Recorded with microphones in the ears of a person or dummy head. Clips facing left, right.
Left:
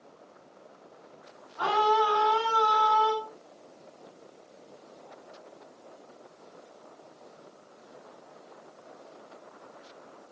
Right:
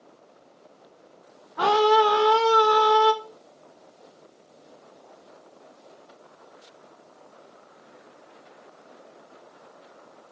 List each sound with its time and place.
1.6 s a scream: 85° right, 1.0 m